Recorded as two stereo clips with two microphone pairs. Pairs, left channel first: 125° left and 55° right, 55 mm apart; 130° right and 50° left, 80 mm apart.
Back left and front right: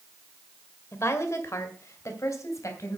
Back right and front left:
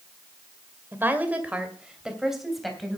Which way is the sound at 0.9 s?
110° left.